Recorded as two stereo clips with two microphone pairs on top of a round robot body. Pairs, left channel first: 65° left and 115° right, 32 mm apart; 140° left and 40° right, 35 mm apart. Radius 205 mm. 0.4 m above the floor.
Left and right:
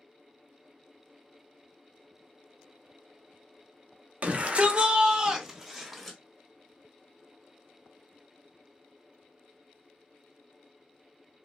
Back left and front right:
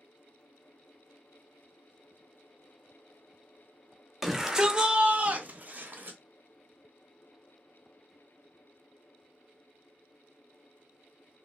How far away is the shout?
About 1.3 m.